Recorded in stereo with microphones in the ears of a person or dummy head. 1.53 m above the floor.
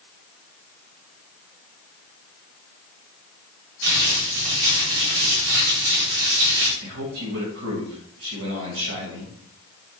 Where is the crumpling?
75° right (ahead or behind), 2 m.